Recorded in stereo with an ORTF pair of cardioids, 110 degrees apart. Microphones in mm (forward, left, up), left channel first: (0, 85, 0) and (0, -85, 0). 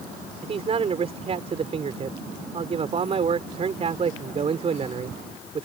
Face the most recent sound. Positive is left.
turn(degrees=-35)